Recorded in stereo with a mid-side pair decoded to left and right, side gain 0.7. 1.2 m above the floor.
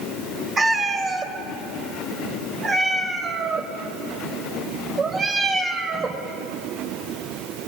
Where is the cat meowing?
25° right, 2.5 m.